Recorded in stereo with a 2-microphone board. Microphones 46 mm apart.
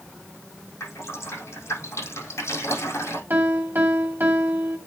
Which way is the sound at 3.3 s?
45° right (ahead or behind).